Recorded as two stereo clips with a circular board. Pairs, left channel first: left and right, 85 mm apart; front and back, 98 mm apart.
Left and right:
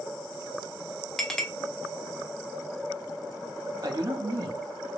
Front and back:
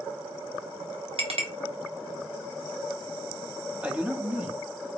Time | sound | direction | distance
1.2 | a clink | 175° left | 0.7 m
3.8 | a man speaking | 105° right | 0.7 m